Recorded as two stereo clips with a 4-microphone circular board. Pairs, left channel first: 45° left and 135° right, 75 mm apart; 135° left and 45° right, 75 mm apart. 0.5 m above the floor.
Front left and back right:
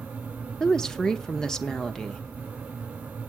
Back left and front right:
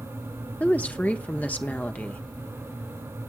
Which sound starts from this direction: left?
A woman speaking, at 0.6 s.